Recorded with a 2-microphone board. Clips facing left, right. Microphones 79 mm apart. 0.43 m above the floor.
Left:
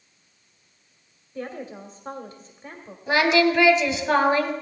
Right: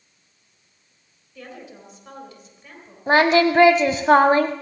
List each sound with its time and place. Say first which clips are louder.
1.4 s a woman speaking: left 6 dB; 35° left (ahead or behind), 2.0 m
3.1 s singing: right 3 dB; 40° right (ahead or behind), 1.0 m